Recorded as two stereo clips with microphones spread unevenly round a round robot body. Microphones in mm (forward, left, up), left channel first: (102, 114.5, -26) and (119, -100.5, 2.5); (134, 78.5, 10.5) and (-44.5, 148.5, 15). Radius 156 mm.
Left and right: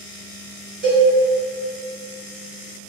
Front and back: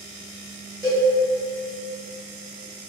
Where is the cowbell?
130° right, 0.7 m.